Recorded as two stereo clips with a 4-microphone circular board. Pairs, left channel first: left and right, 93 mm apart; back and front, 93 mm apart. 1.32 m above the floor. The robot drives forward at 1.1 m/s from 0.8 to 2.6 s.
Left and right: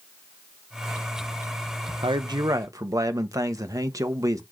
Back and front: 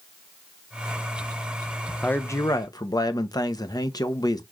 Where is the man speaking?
105° right, 0.8 m; by 4.4 s 140° right, 1.1 m.